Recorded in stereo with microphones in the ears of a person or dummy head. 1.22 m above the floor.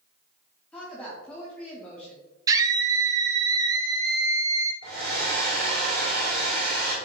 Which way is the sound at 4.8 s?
60° right (ahead or behind).